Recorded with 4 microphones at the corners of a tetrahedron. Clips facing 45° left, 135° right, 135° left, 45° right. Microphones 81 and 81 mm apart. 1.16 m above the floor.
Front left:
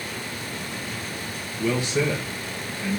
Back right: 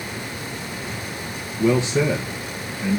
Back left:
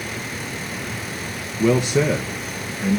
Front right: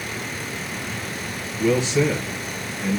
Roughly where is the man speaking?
Behind.